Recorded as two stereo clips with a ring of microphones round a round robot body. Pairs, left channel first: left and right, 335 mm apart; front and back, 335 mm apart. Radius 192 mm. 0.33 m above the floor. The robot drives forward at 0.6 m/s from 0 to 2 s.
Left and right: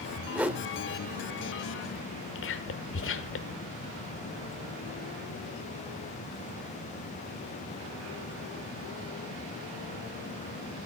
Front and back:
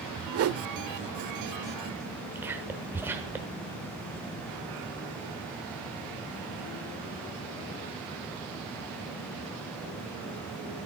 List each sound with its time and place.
0.3 s a whoosh: 175° right, 0.7 m
2.4 s whispering: 100° left, 1.1 m